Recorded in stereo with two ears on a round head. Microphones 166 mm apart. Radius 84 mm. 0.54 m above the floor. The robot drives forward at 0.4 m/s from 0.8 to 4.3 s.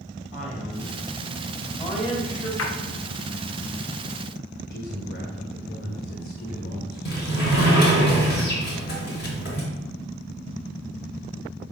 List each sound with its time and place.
0.3 s a man speaking: 35° left (ahead or behind), 2.5 m; by 2.5 s 30° left (ahead or behind), 3 m
2.6 s a splash: 75° left (ahead or behind), 1.5 m
4.7 s a man speaking: 50° left (ahead or behind), 2.0 m
7.0 s a sliding door: 55° left (ahead or behind), 3.5 m